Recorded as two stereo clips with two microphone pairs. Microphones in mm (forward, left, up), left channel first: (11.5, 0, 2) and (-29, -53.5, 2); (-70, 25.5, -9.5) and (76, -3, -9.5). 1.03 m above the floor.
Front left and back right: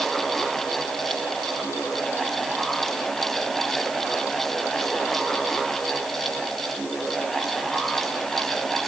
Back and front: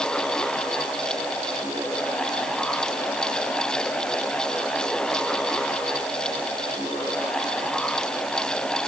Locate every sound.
Only background noise.